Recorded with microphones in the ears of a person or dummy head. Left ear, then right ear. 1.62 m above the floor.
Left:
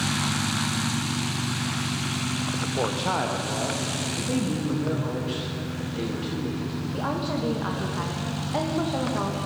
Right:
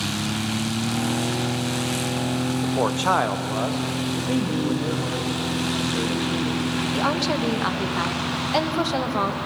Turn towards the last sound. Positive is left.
turn(degrees=-75)  # may be behind; listen again after turning